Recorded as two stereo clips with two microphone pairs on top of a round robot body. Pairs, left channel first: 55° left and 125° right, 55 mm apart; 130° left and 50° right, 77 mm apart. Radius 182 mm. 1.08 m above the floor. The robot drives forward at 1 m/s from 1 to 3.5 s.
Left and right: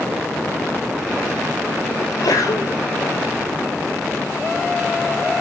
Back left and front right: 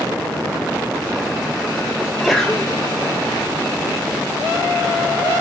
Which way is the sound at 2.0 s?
40° left.